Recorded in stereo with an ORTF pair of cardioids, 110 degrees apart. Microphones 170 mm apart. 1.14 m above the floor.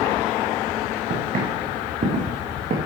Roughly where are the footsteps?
Ahead right.